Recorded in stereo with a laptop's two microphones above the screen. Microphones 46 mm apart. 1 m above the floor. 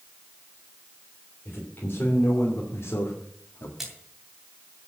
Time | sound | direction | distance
1.4 | a man speaking | 45° left (ahead or behind) | 3.5 m
3.8 | a splash | 5° right (ahead or behind) | 2.5 m